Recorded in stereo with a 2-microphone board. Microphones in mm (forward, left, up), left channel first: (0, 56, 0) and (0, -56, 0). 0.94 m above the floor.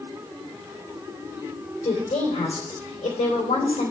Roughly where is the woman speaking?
Left.